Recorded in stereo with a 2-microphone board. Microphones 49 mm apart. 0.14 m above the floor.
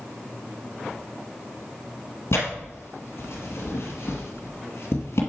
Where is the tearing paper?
65° left (ahead or behind), 1.9 m.